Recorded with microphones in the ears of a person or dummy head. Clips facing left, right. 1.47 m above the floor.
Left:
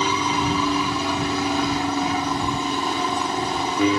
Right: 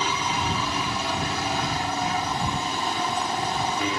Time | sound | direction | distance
0.0 | an aircraft | 70° left (ahead or behind) | ?